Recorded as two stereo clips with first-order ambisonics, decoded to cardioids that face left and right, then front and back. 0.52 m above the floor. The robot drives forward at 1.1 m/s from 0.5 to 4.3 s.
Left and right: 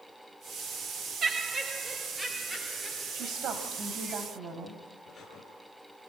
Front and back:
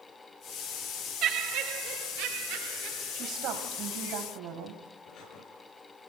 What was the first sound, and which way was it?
Laughter, 145° right.